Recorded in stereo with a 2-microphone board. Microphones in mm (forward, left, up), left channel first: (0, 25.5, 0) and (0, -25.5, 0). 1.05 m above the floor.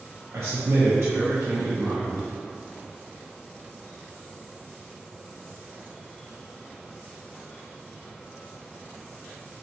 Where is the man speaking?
60° right (ahead or behind), 0.5 m.